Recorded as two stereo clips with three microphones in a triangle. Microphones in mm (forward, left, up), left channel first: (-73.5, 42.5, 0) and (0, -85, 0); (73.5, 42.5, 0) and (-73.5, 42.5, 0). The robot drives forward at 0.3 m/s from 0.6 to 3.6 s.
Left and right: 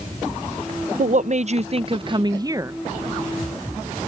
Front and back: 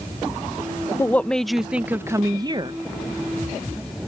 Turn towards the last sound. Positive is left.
turn(degrees=-145)